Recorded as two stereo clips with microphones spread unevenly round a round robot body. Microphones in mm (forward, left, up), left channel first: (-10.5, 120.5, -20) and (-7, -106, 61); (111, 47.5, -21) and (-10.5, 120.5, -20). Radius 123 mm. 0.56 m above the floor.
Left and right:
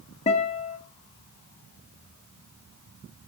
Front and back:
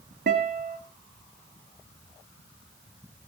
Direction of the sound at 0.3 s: 155° left.